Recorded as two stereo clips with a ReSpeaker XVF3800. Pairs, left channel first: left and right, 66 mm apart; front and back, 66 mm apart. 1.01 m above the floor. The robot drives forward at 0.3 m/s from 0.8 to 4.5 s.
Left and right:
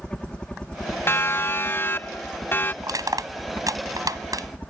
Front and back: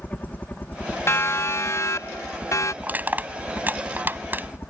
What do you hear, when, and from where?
0.0 s a helicopter: 30° left; by 4.7 s 35° left
1.1 s a siren: 45° left; by 2.7 s 35° left
2.8 s crushing: 115° right; by 4.5 s 120° right